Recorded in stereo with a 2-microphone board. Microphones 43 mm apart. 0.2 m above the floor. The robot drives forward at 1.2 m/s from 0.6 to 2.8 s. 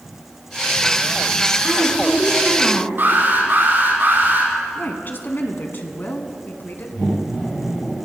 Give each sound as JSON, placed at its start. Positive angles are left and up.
{"t": 1.6, "sound": "a woman speaking", "side_deg": 5, "distance_m": 3.5}
{"t": 3.0, "sound": "an alarm", "side_deg": -55, "distance_m": 7.0}
{"t": 4.8, "sound": "a woman speaking", "side_deg": 50, "distance_m": 1.7}